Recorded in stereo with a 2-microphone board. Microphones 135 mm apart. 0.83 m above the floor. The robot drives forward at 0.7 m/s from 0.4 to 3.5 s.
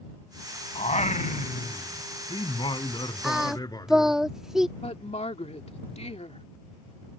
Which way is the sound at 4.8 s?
55° left (ahead or behind).